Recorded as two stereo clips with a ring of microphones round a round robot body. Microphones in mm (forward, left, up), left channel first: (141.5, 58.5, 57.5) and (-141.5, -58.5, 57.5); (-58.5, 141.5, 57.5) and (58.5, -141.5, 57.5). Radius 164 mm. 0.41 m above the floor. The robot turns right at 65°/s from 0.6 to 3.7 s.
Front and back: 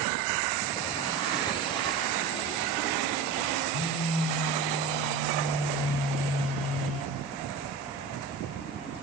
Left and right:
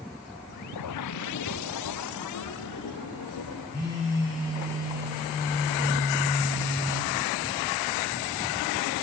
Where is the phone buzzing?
45° left, 6 m.